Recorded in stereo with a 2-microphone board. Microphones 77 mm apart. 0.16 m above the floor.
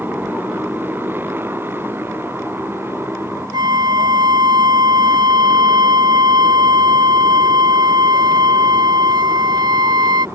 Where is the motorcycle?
25° right (ahead or behind); by 10.4 s 35° right (ahead or behind).